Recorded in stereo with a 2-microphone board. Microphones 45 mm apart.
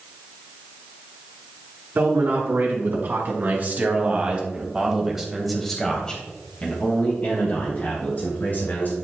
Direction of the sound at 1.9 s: 55° right (ahead or behind).